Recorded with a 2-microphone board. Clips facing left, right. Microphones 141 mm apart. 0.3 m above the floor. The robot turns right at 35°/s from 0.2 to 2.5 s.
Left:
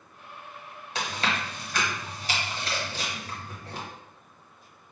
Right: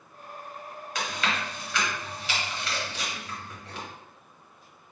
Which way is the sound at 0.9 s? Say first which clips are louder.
Left 1 dB; 30° left (ahead or behind).